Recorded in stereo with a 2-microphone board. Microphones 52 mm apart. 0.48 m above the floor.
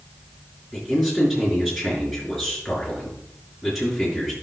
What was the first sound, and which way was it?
A man speaking, 5° right (ahead or behind).